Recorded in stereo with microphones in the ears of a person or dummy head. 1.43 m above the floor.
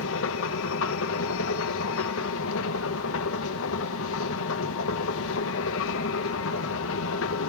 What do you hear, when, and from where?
0.0 s a machine running: 75° left (ahead or behind), 1.4 m